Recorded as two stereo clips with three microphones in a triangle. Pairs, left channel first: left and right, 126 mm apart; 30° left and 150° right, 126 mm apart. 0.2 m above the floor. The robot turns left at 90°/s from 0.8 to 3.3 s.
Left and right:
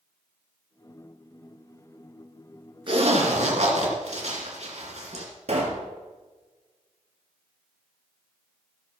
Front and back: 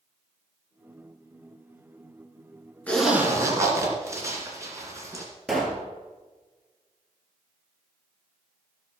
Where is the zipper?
45° right, 2.5 m; by 5.2 s 85° right, 2.5 m.